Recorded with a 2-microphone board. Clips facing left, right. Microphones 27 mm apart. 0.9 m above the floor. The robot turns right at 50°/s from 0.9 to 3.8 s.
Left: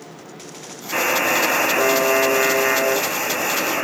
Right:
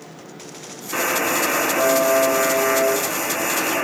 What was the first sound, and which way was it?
A buzzer, 45° left.